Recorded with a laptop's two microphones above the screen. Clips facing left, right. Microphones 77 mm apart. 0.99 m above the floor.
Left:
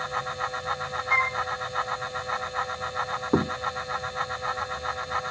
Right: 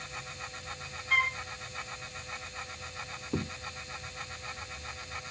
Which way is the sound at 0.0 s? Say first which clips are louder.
Left 14 dB; 65° left (ahead or behind).